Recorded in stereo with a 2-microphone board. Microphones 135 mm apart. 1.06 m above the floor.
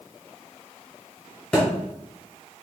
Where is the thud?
5° left (ahead or behind), 2.0 m.